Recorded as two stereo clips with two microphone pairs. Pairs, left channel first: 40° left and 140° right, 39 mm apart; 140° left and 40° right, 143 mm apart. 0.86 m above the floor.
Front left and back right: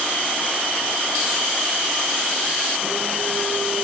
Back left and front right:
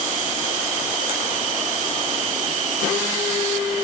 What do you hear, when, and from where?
Only background noise.